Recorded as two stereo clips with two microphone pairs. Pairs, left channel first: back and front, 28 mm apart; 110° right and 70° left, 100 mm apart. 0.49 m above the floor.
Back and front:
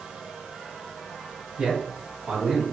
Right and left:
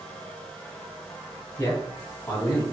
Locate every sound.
1.6 s a man speaking: 45° right, 4 m; by 2.6 s 40° right, 3.5 m